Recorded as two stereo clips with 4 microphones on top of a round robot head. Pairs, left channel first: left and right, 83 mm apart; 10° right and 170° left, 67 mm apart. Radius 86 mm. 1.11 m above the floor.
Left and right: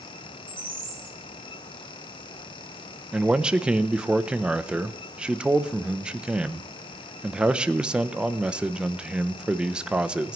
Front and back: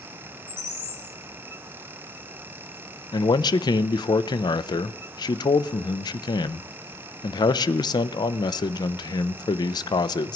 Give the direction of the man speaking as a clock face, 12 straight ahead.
12 o'clock.